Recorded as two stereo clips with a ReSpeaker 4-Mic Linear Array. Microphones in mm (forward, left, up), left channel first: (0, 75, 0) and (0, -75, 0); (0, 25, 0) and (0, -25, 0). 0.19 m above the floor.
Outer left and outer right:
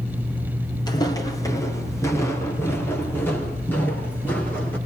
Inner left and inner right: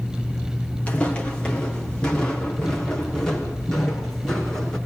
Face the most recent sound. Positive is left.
turn(degrees=10)  # may be behind; listen again after turning